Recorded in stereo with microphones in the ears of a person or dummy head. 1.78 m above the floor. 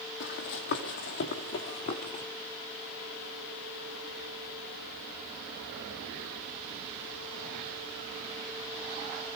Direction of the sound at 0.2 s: 60° left (ahead or behind).